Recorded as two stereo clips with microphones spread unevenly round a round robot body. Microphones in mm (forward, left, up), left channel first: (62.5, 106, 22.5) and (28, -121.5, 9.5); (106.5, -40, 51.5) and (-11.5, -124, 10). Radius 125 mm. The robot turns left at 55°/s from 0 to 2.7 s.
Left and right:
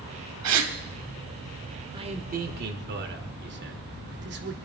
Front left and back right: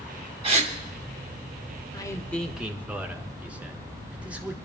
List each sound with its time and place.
0.4 s a gasp: 100° right, 2.5 m; by 0.7 s 115° right, 2.5 m
1.9 s a man speaking: 35° right, 1.3 m; by 4.5 s 75° right, 1.3 m